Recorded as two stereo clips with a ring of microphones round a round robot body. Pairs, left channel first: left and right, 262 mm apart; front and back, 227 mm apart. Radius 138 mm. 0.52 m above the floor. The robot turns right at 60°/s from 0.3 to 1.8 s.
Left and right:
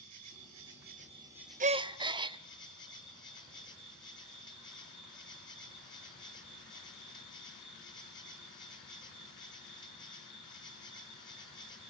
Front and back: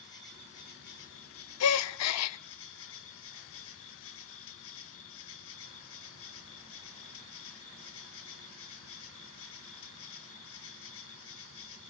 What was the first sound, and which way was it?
An insect, 75° right.